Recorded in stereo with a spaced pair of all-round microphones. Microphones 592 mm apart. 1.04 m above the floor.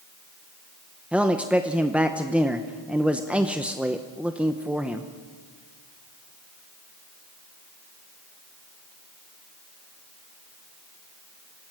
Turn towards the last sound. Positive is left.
turn(degrees=0)  # may be behind; listen again after turning